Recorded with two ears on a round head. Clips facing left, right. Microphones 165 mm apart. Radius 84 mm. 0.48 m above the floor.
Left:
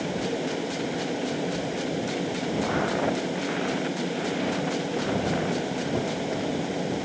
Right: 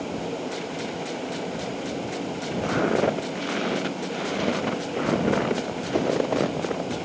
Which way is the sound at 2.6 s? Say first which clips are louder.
Right 6 dB; 40° right (ahead or behind).